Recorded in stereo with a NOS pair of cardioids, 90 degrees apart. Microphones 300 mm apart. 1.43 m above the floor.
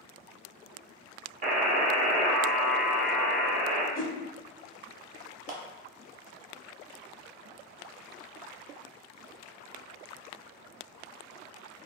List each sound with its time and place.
1.4 s a buzzer: 30° right, 0.8 m
4.0 s a whoosh: 30° left, 0.6 m
5.5 s a clap: 30° right, 0.7 m